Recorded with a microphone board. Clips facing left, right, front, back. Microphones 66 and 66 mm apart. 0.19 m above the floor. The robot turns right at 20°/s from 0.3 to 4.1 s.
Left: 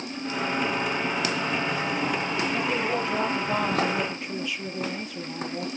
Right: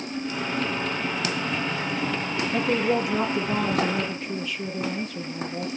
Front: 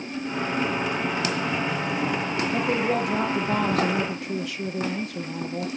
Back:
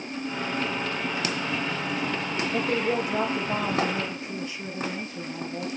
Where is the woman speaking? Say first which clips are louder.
Right 7 dB, front 1 dB; 25° right, 4 m; by 5.7 s 5° left, 4 m.